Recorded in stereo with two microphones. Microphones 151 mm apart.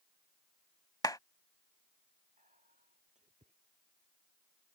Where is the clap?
25° left (ahead or behind).